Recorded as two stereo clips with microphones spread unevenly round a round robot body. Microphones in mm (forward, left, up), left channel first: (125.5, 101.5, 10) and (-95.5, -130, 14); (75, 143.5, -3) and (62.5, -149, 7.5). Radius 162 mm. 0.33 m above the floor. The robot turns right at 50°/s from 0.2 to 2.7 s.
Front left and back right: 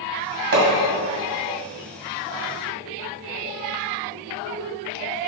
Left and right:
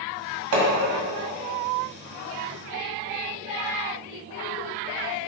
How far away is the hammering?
About 2.0 m.